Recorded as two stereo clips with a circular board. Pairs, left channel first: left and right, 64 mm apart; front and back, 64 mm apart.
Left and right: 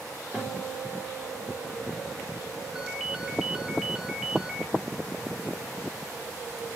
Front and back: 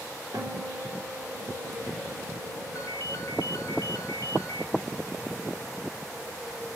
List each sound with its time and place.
0.3 s a guitar: 175° right, 3.5 m
2.8 s a ringtone: 10° right, 1.3 m